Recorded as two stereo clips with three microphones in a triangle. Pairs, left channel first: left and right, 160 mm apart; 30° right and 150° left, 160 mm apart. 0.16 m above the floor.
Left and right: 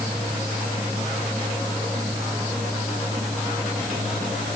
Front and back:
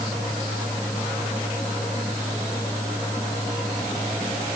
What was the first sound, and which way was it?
Only background noise.